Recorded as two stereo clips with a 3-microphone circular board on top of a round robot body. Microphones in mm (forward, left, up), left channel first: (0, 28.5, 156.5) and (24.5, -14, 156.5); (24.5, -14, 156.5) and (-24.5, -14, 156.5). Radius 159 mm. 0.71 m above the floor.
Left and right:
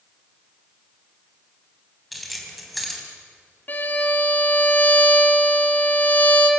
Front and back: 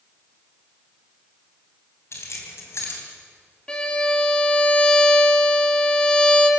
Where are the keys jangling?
30° left, 3.5 m.